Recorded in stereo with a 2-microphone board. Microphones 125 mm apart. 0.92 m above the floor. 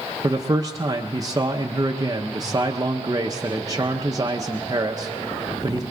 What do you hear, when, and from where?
0.2 s a man speaking: 30° right (ahead or behind), 0.6 m